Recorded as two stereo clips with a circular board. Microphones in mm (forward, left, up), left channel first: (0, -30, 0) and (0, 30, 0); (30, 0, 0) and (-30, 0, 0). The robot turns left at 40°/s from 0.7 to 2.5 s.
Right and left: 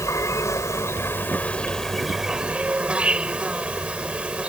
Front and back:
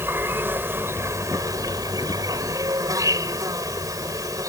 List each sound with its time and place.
0.0 s an insect: 125° right; by 4.5 s 160° left